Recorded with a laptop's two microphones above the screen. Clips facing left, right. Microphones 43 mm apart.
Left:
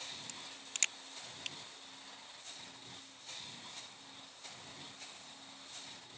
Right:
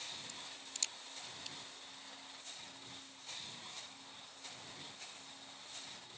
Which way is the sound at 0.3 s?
60° left (ahead or behind).